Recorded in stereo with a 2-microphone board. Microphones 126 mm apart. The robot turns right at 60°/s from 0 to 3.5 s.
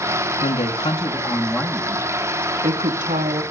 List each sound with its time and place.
0.4 s a woman speaking: 115° left, 1.6 m; by 3.4 s 65° right, 1.6 m